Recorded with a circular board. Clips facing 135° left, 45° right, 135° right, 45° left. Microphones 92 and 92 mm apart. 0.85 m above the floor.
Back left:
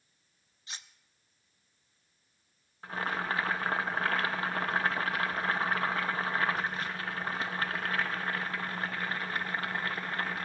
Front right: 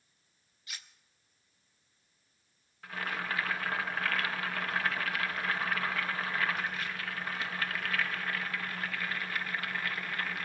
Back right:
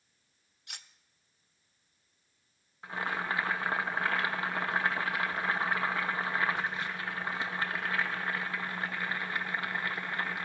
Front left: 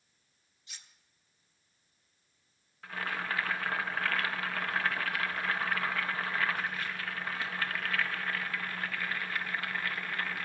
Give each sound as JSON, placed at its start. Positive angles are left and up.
{"t": 0.7, "sound": "cutlery clinking", "azimuth_deg": -160, "distance_m": 0.6}
{"t": 2.8, "sound": "boiling", "azimuth_deg": 170, "distance_m": 1.1}